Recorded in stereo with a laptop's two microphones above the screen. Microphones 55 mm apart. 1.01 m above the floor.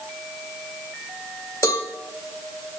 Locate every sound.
1.6 s a cowbell: 80° left, 1.0 m